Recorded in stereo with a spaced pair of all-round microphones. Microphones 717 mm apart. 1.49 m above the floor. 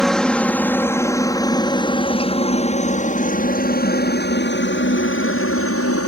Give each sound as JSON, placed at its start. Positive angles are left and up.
{"t": 0.0, "sound": "a helicopter", "side_deg": 0}